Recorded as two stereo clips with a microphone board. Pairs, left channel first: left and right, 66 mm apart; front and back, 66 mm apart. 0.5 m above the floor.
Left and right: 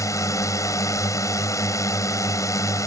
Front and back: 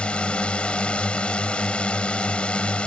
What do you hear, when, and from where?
0.0 s a drone: 70° left